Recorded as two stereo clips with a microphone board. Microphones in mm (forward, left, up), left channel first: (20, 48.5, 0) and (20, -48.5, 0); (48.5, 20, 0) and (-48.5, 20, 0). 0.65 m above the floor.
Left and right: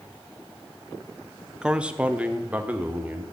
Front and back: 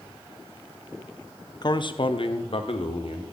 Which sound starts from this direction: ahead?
A man speaking, at 1.6 s.